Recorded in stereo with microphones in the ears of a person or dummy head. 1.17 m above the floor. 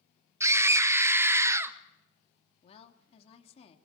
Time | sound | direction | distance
0.4 | a scream | 15° right (ahead or behind) | 1.4 m
2.6 | a woman speaking | 35° left (ahead or behind) | 2.5 m